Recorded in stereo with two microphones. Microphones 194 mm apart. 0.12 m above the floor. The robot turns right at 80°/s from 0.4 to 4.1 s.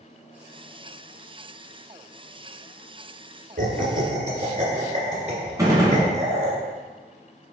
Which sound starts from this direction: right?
Laughter, at 3.6 s.